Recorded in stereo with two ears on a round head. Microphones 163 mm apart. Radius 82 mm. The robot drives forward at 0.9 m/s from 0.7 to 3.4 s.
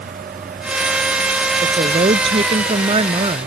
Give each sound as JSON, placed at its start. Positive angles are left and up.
{"t": 1.6, "sound": "a woman speaking", "side_deg": -30}